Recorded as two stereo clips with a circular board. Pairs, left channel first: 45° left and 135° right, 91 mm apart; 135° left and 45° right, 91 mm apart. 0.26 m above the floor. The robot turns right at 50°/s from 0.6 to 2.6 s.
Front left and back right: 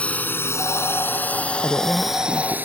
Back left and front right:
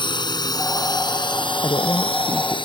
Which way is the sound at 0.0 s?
120° left.